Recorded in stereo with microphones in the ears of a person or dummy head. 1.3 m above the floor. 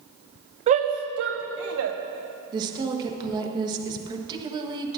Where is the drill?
I don't hear a drill.